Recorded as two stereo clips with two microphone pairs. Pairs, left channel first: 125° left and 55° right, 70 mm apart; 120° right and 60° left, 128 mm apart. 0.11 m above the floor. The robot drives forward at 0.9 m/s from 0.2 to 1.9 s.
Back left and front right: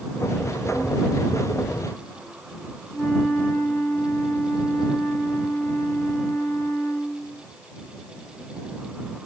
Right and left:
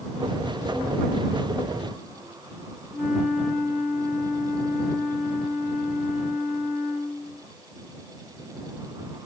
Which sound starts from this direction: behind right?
A flute, at 2.9 s.